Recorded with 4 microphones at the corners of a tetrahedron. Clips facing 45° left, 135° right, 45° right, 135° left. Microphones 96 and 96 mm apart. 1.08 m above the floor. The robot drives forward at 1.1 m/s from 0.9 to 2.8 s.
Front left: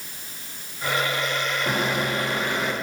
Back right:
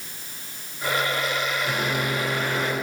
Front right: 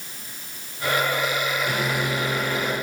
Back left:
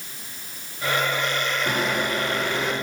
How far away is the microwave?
About 1.9 m.